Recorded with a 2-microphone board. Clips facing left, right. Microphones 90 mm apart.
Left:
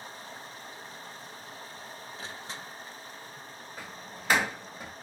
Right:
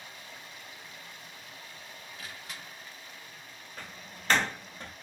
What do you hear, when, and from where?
0.0 s running water: 35° left (ahead or behind), 0.8 m
2.2 s crushing: 30° left (ahead or behind), 0.5 m
3.8 s a door slam: 5° left (ahead or behind), 0.6 m